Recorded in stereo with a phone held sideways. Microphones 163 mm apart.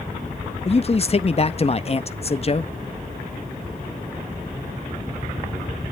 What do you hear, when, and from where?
0.7 s a man speaking: 40° left (ahead or behind), 0.6 m